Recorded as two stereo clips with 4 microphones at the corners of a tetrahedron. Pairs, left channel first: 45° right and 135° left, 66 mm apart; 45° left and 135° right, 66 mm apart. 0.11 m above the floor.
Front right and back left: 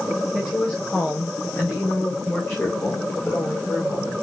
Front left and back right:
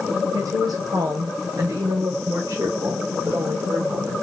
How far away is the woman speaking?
About 7 m.